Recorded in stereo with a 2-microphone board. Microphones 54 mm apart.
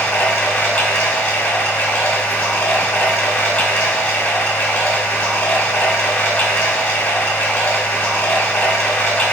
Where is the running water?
40° left (ahead or behind), 1.8 m.